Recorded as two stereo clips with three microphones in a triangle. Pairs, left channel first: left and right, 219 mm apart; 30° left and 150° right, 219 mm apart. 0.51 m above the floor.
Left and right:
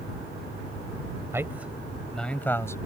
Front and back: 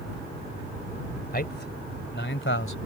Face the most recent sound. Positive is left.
turn(degrees=15)